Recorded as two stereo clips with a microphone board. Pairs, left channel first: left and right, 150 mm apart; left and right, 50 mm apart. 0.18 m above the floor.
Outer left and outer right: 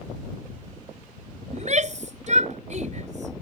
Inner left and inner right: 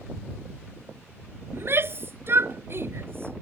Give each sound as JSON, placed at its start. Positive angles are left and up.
{"t": 1.5, "sound": "a shout", "side_deg": -55}